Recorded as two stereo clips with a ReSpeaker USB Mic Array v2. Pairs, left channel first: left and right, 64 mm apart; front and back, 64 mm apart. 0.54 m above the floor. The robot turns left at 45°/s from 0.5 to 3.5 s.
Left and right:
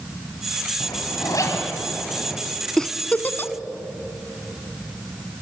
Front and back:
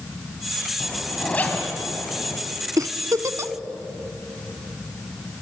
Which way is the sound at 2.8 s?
170° left.